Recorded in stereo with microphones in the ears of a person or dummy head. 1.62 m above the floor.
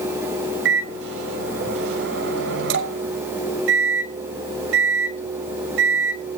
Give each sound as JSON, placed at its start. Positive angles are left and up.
{"t": 0.7, "sound": "a microwave", "side_deg": -85, "distance_m": 5.5}